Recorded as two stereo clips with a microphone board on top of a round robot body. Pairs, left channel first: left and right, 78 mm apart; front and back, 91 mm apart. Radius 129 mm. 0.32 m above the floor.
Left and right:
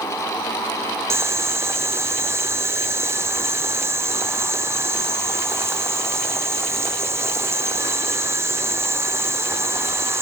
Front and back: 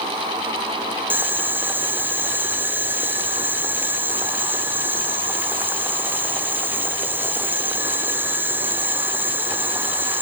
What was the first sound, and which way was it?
Boiling, 125° right.